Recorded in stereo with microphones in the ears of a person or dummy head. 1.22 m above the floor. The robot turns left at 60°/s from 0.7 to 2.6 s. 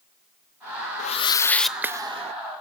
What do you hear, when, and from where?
1.0 s a whoosh: 40° left, 1.1 m; by 2.3 s 40° right, 1.1 m